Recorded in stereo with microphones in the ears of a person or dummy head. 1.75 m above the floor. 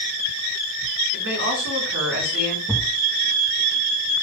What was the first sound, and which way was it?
A woman speaking, 65° right (ahead or behind).